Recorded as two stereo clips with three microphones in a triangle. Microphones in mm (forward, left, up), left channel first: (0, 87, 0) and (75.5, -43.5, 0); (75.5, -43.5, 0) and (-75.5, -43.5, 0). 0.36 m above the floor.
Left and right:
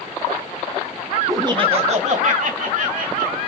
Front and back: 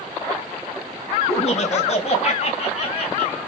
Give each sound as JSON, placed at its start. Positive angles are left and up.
{"t": 1.3, "sound": "laughter", "azimuth_deg": 0, "distance_m": 1.4}